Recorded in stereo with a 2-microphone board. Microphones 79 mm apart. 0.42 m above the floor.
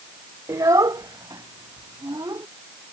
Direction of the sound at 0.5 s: 50° right (ahead or behind).